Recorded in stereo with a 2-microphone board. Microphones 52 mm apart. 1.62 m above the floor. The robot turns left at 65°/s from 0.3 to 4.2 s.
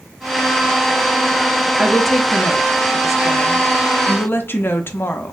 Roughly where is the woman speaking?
Behind.